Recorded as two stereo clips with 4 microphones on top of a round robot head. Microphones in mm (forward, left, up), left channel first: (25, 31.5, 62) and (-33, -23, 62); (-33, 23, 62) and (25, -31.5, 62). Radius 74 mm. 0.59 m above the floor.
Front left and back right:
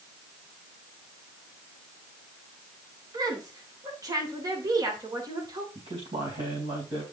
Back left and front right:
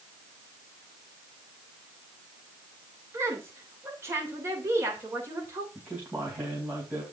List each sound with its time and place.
3.1 s a woman speaking: 100° right, 3 m
5.8 s a man speaking: 115° right, 4 m